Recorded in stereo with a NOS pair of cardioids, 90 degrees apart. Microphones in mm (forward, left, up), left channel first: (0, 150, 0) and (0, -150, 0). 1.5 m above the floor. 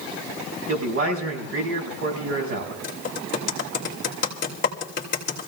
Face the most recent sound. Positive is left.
turn(degrees=40)